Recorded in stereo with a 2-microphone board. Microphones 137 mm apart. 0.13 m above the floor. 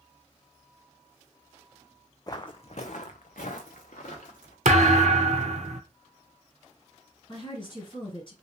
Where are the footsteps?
30° left (ahead or behind), 0.5 m; by 4.5 s 75° left (ahead or behind), 1.4 m.